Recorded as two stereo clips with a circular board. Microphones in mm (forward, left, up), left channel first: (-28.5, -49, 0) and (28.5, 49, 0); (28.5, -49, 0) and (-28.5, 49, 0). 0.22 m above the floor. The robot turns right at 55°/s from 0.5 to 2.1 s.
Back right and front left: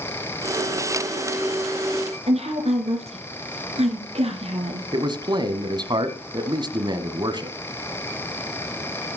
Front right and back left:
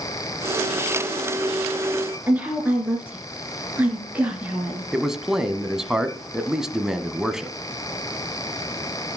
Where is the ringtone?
No ringtone in this recording.